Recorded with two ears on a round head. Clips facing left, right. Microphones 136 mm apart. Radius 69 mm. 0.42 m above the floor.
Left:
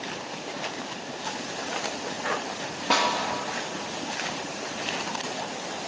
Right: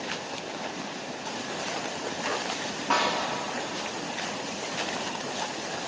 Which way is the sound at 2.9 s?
35° left (ahead or behind).